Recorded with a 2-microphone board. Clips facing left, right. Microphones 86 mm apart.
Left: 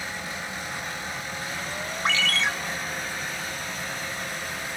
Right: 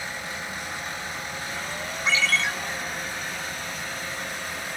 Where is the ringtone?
60° left (ahead or behind), 0.7 m.